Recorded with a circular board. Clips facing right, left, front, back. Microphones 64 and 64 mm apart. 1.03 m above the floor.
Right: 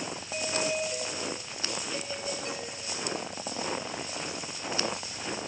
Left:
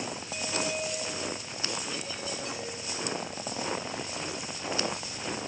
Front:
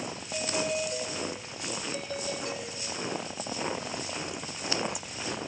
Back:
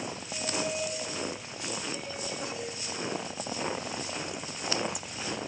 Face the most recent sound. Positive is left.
turn(degrees=-35)